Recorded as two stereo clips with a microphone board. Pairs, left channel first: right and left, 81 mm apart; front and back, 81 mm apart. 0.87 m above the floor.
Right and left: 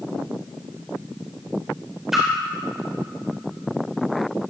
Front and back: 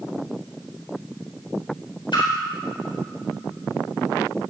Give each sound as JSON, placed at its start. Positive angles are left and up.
{"t": 2.1, "sound": "a splash", "azimuth_deg": 5, "distance_m": 4.0}